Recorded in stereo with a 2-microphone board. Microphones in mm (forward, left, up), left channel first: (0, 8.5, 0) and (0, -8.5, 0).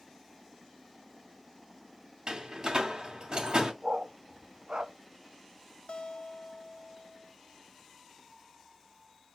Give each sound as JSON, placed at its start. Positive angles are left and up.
{"t": 2.3, "sound": "a door slam", "side_deg": -50, "distance_m": 2.5}
{"t": 3.8, "sound": "a dog barking", "side_deg": -60, "distance_m": 1.0}
{"t": 5.9, "sound": "a guitar", "side_deg": 70, "distance_m": 0.7}